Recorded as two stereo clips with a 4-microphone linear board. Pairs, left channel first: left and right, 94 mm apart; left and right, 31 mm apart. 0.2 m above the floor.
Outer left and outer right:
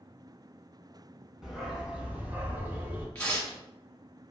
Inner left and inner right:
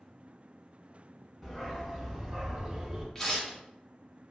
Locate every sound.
1.4 s a dog barking: 5° right (ahead or behind), 0.8 m; by 3.0 s 20° right (ahead or behind), 0.8 m
3.1 s tearing paper: 15° left (ahead or behind), 1.2 m